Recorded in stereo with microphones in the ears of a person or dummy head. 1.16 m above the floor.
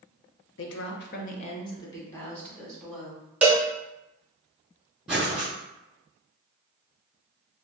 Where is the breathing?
5° right (ahead or behind), 1.9 m.